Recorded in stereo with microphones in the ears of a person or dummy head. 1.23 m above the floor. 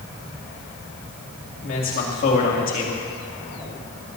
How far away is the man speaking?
About 2.5 m.